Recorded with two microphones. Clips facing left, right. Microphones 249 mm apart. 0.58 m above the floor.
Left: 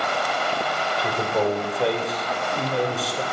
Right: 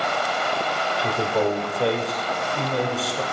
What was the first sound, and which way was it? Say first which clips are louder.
A man speaking: right 1 dB; centre (ahead or behind).